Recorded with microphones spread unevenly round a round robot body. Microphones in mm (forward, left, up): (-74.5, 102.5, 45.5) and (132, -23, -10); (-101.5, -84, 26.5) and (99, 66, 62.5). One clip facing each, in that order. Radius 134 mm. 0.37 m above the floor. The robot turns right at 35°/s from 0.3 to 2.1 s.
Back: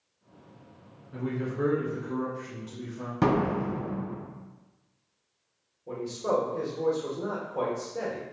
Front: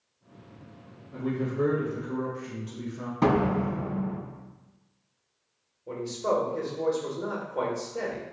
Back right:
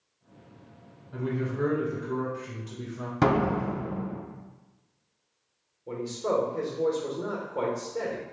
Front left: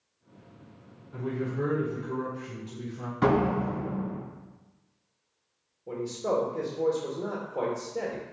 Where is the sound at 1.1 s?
135° right, 1.5 m; by 3.1 s 100° right, 1.5 m.